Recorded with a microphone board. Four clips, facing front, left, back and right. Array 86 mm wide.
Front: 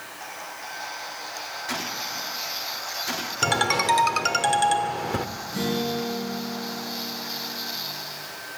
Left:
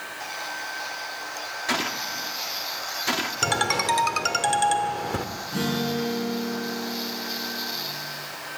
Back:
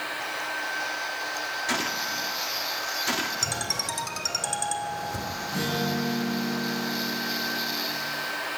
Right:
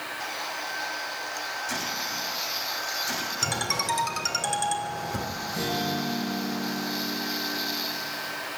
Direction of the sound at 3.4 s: 35° left.